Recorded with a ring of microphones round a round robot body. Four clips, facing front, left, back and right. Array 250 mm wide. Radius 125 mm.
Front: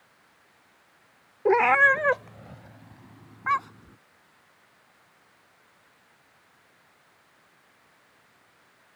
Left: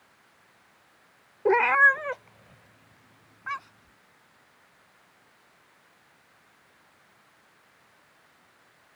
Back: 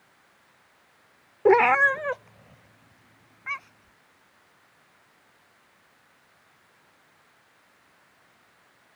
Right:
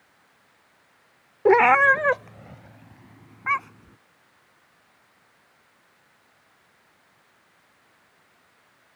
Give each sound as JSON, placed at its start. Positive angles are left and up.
{"t": 1.4, "sound": "a cat meowing", "azimuth_deg": -135}